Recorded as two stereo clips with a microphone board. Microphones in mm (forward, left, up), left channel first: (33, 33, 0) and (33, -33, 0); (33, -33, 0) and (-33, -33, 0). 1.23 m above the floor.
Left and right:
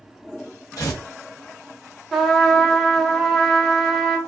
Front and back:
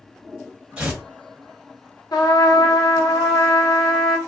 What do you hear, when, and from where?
0.8 s tearing paper: 110° left, 1.3 m
2.1 s a trumpet: 5° left, 0.8 m